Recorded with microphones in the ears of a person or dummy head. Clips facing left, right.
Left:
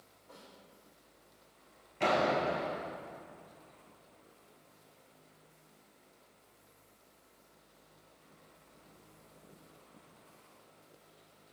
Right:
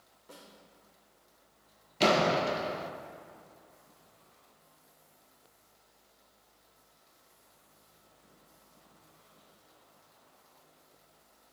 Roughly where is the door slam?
Right.